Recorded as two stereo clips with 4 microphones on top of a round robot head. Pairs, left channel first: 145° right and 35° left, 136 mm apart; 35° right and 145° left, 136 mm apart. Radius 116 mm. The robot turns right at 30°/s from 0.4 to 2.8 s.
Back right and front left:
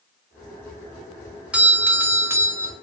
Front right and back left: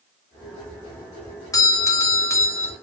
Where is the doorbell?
30° right, 1.1 m; by 2.7 s 5° left, 1.1 m.